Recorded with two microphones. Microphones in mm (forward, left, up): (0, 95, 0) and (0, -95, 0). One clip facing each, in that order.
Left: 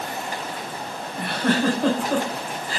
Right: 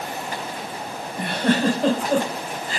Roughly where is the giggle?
Centre.